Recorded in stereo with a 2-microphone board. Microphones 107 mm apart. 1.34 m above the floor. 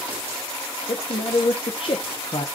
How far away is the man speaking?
About 0.6 m.